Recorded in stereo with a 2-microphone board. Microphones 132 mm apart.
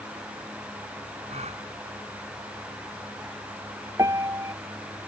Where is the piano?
25° right (ahead or behind).